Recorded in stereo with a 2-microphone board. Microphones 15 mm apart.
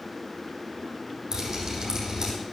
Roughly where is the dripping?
Right.